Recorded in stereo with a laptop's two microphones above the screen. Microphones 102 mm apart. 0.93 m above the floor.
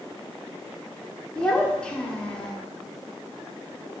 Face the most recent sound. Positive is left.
turn(degrees=10)  # may be behind; listen again after turning